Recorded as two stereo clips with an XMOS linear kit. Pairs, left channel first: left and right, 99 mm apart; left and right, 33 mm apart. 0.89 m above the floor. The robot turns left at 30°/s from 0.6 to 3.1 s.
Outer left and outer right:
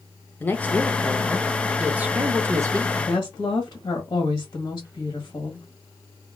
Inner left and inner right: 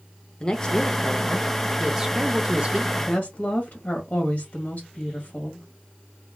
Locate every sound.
0.4 s a woman speaking: 20° left, 0.6 m; by 2.9 s 45° right, 0.6 m
3.0 s a woman speaking: 35° left (ahead or behind), 1.3 m